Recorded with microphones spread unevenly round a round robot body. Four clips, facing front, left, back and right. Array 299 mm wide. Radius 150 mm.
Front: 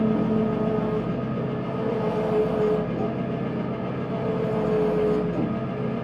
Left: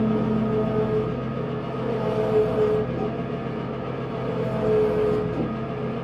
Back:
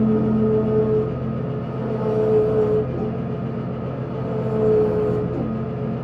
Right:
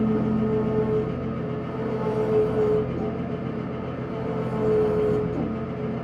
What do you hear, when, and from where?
0.0 s an engine running: straight behind, 5.5 m